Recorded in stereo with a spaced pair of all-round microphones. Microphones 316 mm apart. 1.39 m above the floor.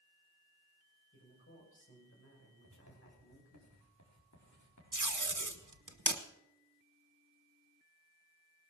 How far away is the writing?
About 4.5 m.